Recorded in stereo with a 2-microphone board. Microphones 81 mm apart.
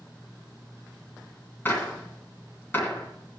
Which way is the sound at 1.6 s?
30° left (ahead or behind).